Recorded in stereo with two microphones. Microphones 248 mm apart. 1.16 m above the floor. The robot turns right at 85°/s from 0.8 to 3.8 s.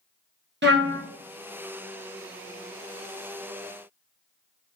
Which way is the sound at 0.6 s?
45° right (ahead or behind).